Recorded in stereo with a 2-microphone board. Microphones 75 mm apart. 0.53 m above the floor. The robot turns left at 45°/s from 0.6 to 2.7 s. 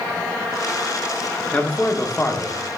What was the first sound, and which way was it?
A man speaking, 150° left.